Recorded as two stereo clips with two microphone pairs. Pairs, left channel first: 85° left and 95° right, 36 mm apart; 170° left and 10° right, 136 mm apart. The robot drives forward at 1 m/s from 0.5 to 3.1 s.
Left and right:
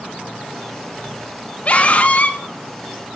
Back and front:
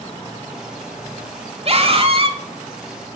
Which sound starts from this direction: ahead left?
A scream, at 1.6 s.